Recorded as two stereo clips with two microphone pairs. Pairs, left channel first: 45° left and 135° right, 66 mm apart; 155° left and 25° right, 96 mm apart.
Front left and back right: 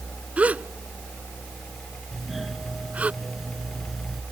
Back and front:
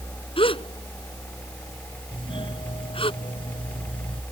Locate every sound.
0.4 s a gasp: 160° left
2.1 s a doorbell: 140° left